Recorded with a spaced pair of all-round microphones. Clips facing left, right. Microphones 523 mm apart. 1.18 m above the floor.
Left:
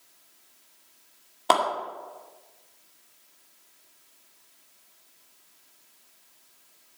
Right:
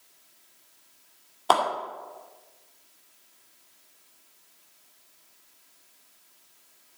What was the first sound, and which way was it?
A clap, 45° left (ahead or behind).